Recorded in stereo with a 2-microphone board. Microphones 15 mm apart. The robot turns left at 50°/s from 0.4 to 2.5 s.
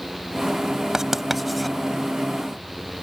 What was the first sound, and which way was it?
Writing, 30° right (ahead or behind).